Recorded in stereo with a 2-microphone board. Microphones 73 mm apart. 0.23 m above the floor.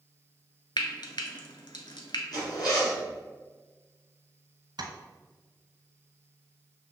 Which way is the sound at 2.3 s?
70° left (ahead or behind).